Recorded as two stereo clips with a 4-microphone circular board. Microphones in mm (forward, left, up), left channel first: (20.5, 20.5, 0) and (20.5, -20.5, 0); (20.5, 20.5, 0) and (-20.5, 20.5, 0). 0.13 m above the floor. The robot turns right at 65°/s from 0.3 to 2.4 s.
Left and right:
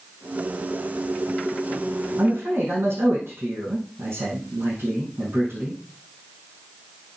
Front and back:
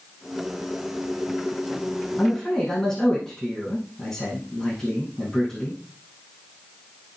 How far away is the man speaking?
About 6.5 m.